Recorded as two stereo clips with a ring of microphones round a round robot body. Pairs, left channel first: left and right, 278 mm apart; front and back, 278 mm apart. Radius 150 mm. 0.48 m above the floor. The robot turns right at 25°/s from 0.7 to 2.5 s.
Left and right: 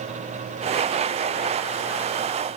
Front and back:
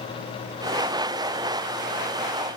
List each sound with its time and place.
Only background noise.